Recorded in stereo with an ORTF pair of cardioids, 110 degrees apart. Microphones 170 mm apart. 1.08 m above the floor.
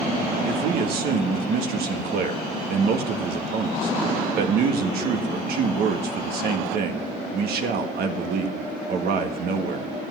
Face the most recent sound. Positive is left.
turn(degrees=-65)